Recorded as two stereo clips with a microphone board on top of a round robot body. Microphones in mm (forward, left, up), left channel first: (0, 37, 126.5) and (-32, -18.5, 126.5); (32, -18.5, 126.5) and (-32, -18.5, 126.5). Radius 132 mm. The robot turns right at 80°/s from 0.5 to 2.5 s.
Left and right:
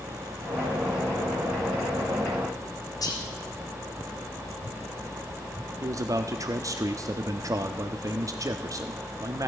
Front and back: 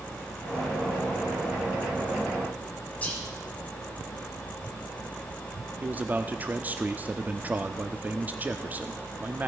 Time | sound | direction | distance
3.0 | whispering | 70° left | 3 m
5.8 | a man speaking | 120° right | 1.0 m